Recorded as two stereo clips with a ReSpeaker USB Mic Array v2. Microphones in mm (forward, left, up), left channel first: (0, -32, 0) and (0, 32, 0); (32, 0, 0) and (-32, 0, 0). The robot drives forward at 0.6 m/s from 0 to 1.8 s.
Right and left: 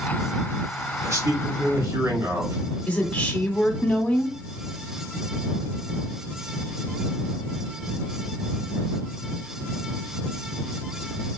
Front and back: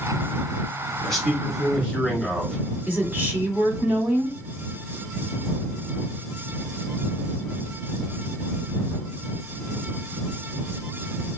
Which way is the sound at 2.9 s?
150° right.